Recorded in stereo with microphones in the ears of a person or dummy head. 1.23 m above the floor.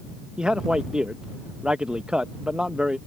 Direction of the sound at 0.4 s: Centre (ahead or behind).